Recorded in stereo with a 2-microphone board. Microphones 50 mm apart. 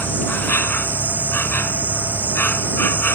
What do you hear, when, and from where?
0.0 s an insect: 45° left (ahead or behind)